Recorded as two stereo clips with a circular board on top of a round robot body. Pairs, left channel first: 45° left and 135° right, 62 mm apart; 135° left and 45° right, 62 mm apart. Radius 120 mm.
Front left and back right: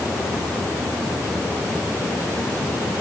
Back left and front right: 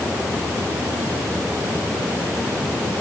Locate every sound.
Only background noise.